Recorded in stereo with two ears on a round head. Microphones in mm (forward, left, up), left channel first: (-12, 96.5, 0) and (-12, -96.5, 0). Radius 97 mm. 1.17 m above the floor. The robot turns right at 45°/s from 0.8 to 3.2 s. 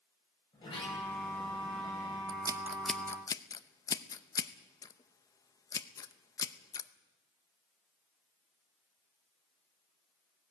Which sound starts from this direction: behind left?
A sliding door, at 0.5 s.